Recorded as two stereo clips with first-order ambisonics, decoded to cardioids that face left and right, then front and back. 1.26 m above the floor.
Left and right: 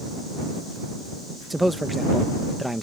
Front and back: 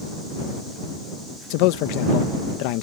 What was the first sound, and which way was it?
A man speaking, straight ahead.